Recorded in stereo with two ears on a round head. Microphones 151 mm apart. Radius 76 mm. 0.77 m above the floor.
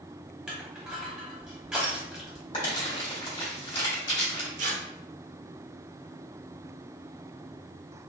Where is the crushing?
5° right (ahead or behind), 0.8 m.